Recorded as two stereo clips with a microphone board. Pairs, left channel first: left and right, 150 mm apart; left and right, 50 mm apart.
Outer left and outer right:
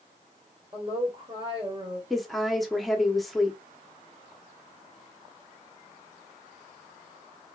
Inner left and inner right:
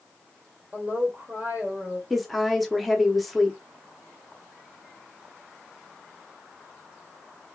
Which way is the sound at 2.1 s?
Centre (ahead or behind).